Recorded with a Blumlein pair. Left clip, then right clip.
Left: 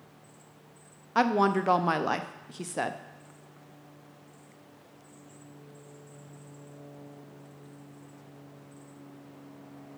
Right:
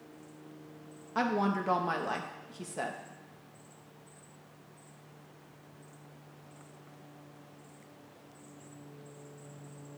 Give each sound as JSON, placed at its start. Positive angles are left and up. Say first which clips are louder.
{"t": 1.1, "sound": "a woman speaking", "louder": "left 6 dB", "azimuth_deg": 70, "distance_m": 0.5}